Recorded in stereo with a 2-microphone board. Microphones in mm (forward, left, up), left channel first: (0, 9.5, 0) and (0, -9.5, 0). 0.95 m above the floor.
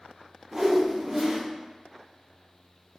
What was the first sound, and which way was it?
A whoosh, 30° right (ahead or behind).